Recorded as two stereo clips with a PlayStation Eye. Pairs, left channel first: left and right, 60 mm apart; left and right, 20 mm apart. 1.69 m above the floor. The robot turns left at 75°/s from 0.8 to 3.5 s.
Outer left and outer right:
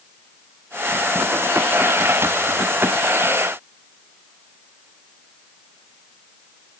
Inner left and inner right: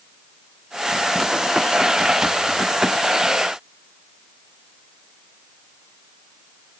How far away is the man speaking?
No man speaking in this recording.